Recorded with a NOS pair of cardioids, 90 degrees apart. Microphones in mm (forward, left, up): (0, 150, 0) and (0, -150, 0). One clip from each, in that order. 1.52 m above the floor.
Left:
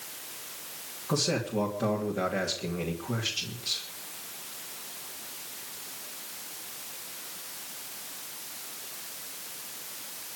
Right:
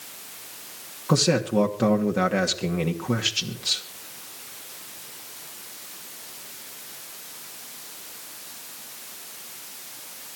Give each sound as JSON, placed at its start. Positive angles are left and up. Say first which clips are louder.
{"t": 1.1, "sound": "a man speaking", "louder": "right 7 dB", "azimuth_deg": -55, "distance_m": 3.0}